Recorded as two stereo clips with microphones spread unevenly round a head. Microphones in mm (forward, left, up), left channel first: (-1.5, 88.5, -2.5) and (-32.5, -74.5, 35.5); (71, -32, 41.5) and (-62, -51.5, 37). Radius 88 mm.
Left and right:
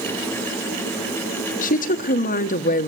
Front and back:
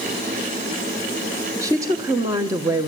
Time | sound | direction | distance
1.6 | a woman speaking | 120° left | 1.1 m